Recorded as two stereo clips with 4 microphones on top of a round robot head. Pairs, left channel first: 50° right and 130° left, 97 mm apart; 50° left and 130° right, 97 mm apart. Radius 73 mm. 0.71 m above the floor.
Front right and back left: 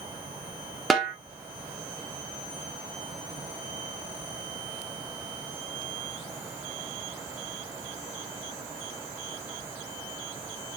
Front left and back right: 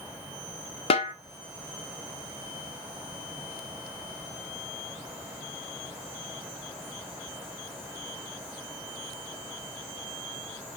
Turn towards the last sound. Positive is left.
turn(degrees=40)